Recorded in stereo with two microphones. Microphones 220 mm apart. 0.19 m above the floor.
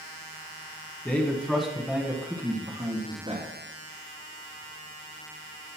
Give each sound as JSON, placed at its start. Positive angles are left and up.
{"t": 1.1, "sound": "a man speaking", "side_deg": 10, "distance_m": 2.0}